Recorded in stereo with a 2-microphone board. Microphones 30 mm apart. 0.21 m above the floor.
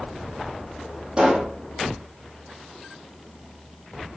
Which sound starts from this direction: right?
A pop, at 1.2 s.